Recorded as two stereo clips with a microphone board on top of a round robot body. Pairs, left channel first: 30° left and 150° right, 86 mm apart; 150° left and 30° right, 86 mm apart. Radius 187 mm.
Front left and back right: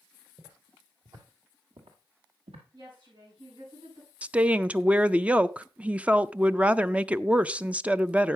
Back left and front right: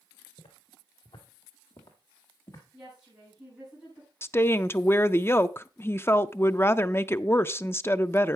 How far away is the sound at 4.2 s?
About 0.6 m.